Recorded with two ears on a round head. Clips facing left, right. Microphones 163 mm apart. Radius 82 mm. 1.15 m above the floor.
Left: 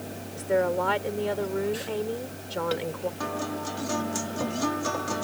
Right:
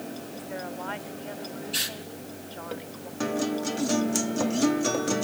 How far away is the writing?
No writing in this recording.